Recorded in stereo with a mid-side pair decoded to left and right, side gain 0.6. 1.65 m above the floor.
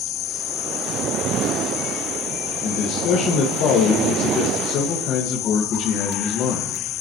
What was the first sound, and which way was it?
A man speaking, 60° left.